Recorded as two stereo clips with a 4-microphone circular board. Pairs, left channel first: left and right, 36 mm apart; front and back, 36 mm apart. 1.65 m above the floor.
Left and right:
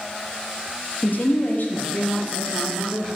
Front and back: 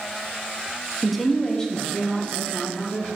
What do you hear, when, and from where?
1.0 s a woman speaking: 95° left, 0.8 m; by 3.1 s 55° left, 2 m